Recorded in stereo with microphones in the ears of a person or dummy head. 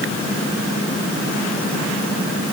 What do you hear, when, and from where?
Only background noise.